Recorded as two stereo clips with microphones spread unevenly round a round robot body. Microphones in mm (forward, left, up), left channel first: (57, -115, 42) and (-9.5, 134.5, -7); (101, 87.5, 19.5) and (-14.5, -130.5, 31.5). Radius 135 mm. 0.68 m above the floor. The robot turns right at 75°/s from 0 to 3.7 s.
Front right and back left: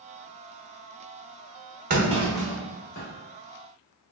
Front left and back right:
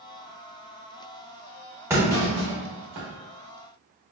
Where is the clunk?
160° left, 0.9 m; by 3.1 s 115° right, 0.9 m.